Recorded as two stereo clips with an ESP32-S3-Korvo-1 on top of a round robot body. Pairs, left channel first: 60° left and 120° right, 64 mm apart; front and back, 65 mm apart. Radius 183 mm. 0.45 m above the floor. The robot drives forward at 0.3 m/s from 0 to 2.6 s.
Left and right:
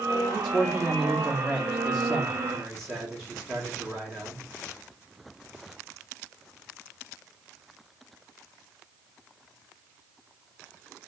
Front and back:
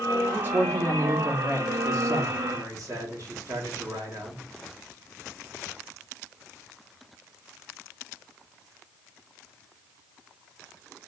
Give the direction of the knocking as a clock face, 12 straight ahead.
No knocking in this recording.